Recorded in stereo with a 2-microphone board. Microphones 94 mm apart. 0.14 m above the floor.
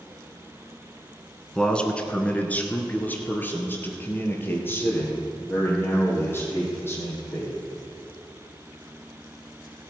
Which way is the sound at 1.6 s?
10° left (ahead or behind).